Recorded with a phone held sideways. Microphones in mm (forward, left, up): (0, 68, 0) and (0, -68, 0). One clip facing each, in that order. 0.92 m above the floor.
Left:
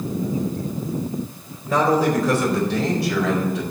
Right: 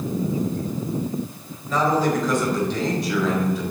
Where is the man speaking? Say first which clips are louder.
Left 2 dB; 60° left (ahead or behind), 4 m; by 3.6 s 80° left, 4.5 m.